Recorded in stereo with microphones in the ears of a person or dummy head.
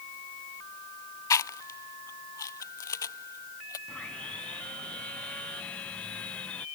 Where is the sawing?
10° left (ahead or behind).